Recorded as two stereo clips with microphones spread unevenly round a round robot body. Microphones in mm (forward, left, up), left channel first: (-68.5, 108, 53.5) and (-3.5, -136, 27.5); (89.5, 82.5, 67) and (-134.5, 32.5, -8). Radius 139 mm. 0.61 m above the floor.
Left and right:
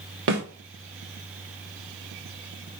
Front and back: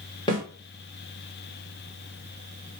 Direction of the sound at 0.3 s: 70° right.